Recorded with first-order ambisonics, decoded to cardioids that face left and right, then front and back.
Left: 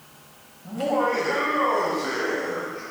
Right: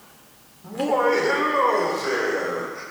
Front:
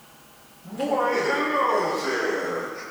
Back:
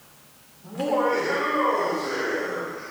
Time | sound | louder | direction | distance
0.6 | laughter | right 3 dB, even | 105° right | 2.5 m